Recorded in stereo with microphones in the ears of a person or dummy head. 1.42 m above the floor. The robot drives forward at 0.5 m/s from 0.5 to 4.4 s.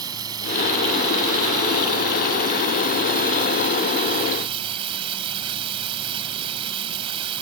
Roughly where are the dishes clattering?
No dishes clattering in this recording.